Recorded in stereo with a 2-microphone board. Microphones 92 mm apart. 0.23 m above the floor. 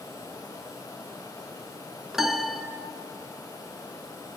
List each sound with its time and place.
2.1 s a piano: 5° right (ahead or behind), 1.4 m